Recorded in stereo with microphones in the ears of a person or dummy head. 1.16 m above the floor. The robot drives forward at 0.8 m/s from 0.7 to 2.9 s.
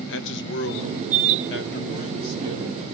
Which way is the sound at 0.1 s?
65° left (ahead or behind).